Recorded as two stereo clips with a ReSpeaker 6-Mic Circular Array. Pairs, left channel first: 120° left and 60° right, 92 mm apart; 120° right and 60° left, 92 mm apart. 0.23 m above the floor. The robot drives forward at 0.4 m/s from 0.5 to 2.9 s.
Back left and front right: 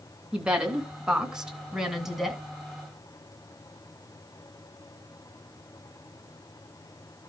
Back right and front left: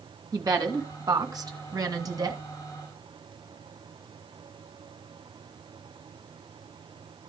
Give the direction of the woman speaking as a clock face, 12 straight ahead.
11 o'clock.